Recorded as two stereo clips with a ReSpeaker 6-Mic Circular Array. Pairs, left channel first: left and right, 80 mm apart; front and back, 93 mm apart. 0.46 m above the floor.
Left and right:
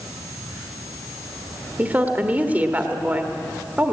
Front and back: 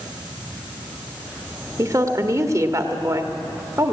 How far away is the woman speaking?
About 1.6 m.